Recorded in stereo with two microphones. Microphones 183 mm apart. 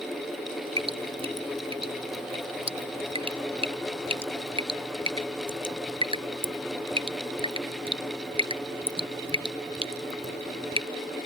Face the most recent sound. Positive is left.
turn(degrees=-30)  # may be behind; listen again after turning